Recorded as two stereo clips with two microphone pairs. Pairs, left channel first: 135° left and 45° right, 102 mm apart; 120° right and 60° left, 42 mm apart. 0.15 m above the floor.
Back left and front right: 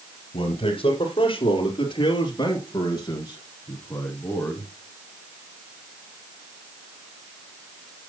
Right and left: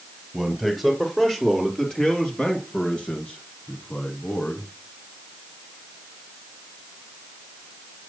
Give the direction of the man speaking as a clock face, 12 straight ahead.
7 o'clock.